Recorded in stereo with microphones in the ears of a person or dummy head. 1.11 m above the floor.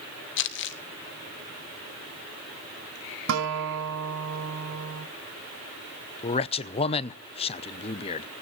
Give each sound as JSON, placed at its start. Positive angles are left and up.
{"t": 0.4, "sound": "crumpling", "side_deg": 60, "distance_m": 0.9}
{"t": 3.3, "sound": "a guitar", "side_deg": -70, "distance_m": 2.0}
{"t": 6.2, "sound": "a man speaking", "side_deg": 25, "distance_m": 0.6}